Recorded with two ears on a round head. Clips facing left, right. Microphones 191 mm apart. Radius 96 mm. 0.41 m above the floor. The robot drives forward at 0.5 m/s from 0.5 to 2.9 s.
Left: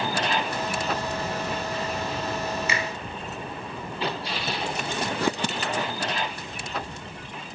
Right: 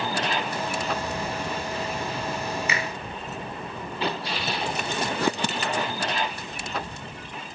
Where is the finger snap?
30° left (ahead or behind), 0.8 m.